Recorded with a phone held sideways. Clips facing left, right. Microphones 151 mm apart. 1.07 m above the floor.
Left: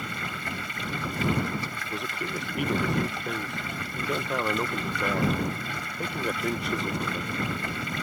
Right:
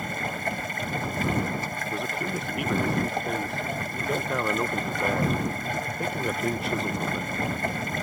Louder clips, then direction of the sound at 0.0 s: Right 5 dB; 45° right (ahead or behind).